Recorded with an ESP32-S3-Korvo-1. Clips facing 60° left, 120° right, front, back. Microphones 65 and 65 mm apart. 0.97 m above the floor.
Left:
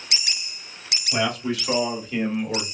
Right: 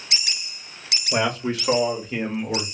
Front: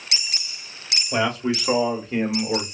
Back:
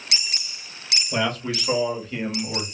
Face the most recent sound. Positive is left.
turn(degrees=-40)